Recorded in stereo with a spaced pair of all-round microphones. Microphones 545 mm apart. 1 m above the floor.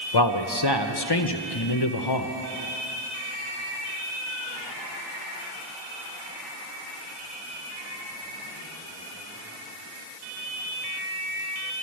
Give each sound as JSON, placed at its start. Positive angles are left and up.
{"t": 0.1, "sound": "a man speaking", "side_deg": 45, "distance_m": 0.7}